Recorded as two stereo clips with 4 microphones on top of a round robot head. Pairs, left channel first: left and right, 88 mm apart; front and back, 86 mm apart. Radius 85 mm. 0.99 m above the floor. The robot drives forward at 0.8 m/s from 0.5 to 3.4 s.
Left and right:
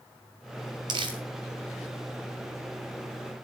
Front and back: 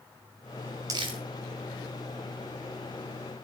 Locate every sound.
0.9 s crumpling: 125° right, 0.6 m; by 1.2 s 145° right, 0.8 m